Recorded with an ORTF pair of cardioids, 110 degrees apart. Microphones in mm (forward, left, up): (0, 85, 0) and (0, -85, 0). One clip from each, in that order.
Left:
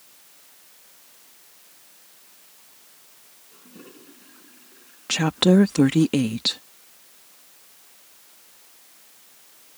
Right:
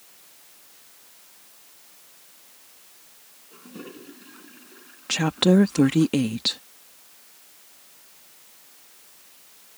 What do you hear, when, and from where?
3.5 s a toilet flushing: 35° right
5.1 s a woman speaking: 10° left